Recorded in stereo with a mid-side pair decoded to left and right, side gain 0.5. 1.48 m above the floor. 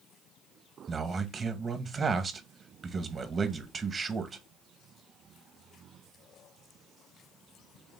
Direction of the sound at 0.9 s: 35° right.